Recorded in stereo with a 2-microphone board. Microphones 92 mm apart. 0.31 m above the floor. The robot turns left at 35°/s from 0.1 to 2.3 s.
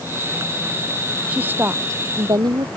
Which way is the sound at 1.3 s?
15° right.